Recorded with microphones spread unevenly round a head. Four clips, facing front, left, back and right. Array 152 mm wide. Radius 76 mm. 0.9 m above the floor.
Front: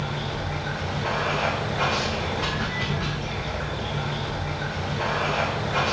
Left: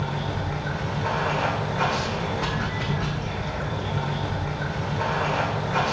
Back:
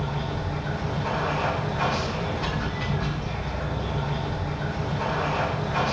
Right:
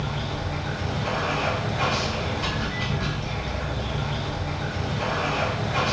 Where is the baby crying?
No baby crying in this recording.